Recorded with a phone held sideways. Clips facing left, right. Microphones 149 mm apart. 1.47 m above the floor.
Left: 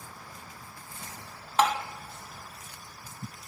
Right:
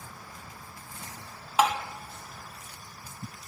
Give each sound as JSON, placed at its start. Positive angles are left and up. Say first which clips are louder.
{"t": 1.6, "sound": "tapping", "louder": "even", "side_deg": -5, "distance_m": 1.7}